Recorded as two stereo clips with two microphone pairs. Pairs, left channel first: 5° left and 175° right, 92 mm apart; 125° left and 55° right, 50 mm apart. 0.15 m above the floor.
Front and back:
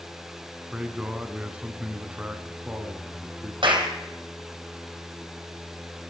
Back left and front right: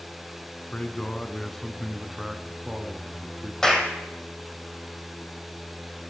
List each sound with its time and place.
0.7 s a man speaking: 120° left, 1.3 m; by 3.5 s 105° right, 1.6 m
3.6 s a clap: 155° right, 3.5 m